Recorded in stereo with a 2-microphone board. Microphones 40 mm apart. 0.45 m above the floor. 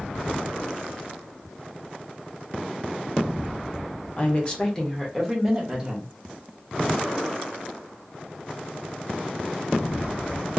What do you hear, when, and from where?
4.2 s a woman speaking: 35° left (ahead or behind), 1.1 m; by 6.1 s 10° right (ahead or behind), 1.6 m